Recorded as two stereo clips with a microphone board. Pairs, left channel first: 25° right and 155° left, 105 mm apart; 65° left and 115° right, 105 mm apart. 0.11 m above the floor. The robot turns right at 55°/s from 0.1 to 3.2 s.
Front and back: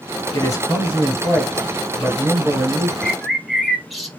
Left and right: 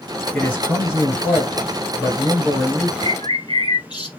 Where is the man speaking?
10° right, 1.8 m; by 2.9 s 135° left, 1.8 m.